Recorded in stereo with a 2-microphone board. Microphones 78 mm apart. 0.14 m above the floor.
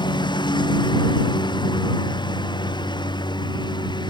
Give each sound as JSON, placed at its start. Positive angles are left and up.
{"t": 0.0, "sound": "a lawn mower", "side_deg": 80}